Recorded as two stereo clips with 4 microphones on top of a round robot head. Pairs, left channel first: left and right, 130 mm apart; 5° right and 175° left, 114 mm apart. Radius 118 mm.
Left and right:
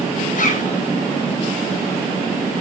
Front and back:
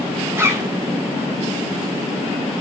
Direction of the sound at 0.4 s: 105° left.